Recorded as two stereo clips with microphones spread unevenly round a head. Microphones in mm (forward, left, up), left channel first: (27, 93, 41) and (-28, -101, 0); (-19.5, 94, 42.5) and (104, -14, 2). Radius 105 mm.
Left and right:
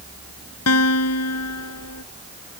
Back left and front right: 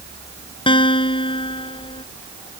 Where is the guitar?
80° left.